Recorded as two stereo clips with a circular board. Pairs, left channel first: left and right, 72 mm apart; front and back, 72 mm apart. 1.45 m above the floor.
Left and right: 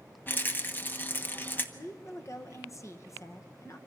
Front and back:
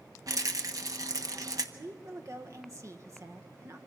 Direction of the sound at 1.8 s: 135° left.